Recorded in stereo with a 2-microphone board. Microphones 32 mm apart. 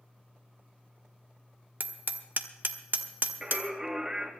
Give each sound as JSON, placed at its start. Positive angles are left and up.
{"t": 1.8, "sound": "hammering", "side_deg": -70, "distance_m": 1.1}
{"t": 3.4, "sound": "singing", "side_deg": -15, "distance_m": 2.0}